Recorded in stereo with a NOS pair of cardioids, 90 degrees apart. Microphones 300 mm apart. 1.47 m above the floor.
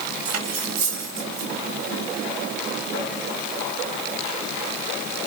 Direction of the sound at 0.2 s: 65° right.